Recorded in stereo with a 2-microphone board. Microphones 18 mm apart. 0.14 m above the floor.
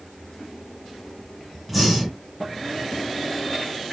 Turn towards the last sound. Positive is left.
turn(degrees=-5)  # may be behind; listen again after turning